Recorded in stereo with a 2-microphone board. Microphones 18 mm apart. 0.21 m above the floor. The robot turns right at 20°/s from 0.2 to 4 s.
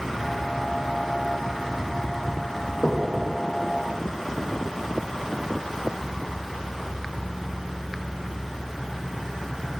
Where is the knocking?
70° left (ahead or behind), 3.5 m.